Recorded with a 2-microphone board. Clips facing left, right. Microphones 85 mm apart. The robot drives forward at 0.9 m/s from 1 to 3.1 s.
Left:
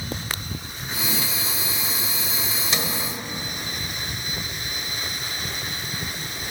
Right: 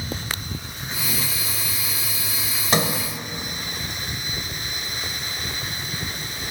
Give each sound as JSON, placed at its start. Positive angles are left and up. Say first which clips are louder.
{"t": 2.7, "sound": "a sliding door", "louder": "right 8 dB", "side_deg": -45, "distance_m": 1.1}